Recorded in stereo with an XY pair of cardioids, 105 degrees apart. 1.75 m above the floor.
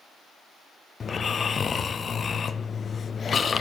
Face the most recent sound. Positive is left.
turn(degrees=40)